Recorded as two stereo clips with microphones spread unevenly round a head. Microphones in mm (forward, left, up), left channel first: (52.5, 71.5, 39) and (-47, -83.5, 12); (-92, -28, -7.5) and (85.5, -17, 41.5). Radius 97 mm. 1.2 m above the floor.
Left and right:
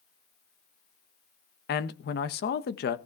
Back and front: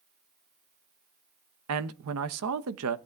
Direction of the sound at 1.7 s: 20° left.